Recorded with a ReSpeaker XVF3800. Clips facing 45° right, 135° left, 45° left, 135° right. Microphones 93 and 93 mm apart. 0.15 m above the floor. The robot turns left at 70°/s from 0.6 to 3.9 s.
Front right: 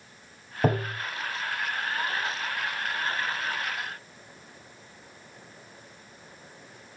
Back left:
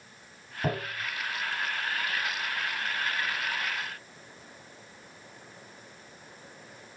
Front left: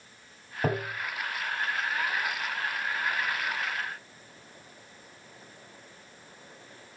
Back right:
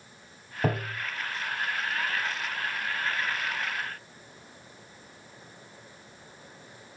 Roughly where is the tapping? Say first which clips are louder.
Front right 6 dB, even; ahead right.